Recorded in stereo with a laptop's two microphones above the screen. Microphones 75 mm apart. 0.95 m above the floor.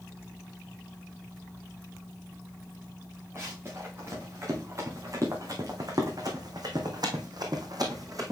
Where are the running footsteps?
35° right (ahead or behind), 5 m; by 8.3 s 50° right (ahead or behind), 2 m.